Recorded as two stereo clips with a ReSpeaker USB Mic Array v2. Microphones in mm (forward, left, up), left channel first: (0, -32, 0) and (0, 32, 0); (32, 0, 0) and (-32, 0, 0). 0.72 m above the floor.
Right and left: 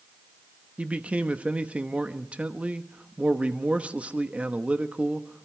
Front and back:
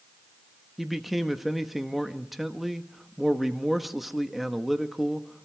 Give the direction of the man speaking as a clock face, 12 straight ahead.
9 o'clock.